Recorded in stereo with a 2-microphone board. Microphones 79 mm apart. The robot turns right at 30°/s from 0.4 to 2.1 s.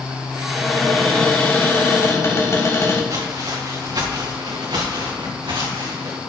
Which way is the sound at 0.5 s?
5° right.